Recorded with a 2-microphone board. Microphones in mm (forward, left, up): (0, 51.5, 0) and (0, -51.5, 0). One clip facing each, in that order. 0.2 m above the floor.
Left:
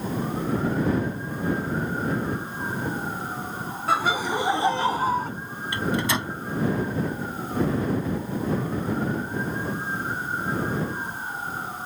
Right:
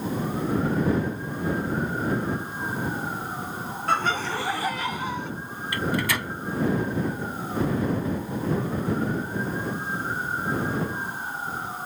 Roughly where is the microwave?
Left.